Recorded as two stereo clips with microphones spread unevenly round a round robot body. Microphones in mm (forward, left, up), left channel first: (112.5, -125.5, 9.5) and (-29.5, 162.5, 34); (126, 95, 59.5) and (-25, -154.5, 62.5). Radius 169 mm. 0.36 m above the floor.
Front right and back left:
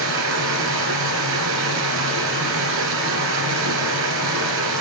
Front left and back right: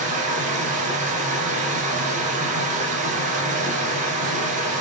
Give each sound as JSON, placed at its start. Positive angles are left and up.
{"t": 0.0, "sound": "running water", "azimuth_deg": 170, "distance_m": 2.0}